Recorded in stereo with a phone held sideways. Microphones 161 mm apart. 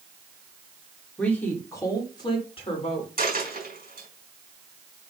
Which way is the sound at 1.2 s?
5° left (ahead or behind).